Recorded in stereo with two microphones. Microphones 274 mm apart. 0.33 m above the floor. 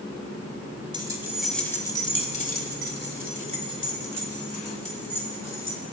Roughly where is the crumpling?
I don't hear crumpling.